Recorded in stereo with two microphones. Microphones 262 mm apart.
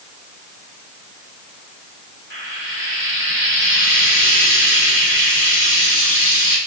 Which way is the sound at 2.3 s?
50° right (ahead or behind).